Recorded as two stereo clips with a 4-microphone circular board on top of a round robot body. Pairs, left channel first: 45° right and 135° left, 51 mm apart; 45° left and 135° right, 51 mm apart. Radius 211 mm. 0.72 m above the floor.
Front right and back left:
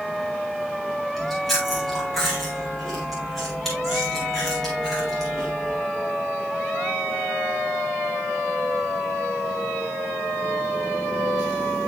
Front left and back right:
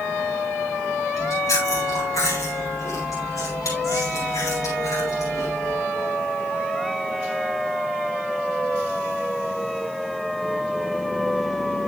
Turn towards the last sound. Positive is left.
turn(degrees=40)